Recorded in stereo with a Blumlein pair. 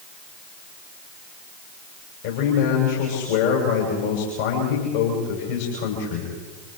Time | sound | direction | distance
2.2 | a man speaking | 55° left | 7 m